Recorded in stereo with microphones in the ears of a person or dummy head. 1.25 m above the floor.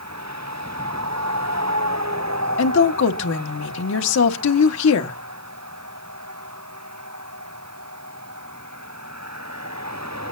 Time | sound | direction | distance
2.6 | a woman speaking | 75° left (ahead or behind) | 1.4 m